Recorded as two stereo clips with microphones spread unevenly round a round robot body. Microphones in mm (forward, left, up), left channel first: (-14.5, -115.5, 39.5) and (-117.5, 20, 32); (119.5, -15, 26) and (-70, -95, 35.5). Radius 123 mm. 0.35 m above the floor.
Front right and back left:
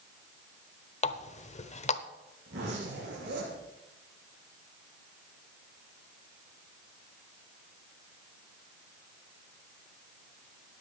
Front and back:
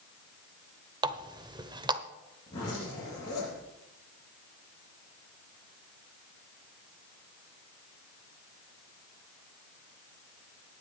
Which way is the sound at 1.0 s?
90° right.